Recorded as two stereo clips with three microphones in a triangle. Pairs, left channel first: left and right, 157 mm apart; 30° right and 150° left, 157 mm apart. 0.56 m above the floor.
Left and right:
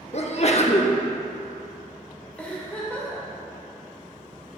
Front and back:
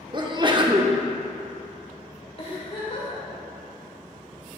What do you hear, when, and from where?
0.1 s a sneeze: 105° left, 0.9 m
2.4 s a giggle: 10° left, 1.9 m